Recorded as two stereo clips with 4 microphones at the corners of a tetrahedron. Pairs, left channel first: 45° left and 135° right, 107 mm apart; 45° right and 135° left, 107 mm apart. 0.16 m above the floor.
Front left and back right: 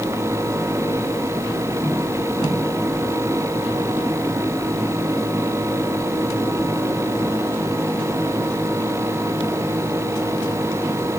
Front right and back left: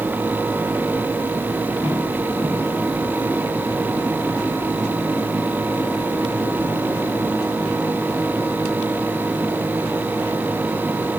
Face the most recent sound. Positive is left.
No sound to turn to.